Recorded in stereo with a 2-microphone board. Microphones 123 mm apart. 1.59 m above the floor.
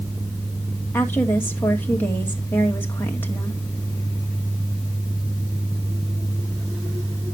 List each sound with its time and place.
0.9 s a woman speaking: 15° left (ahead or behind), 2.0 m